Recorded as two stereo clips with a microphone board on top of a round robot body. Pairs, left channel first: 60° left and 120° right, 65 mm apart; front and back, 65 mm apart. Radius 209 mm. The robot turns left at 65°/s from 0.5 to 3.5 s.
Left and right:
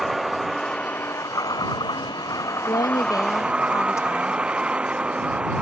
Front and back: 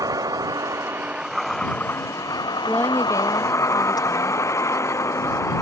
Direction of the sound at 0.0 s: 150° left.